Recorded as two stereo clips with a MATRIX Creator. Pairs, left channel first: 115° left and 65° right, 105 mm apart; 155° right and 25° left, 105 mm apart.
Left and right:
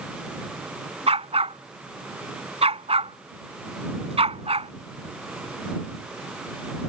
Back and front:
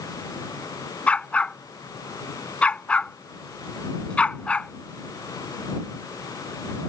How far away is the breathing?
No breathing in this recording.